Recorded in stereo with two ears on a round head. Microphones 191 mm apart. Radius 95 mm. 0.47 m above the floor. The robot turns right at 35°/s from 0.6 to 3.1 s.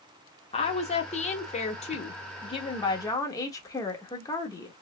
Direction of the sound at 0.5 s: 60° left.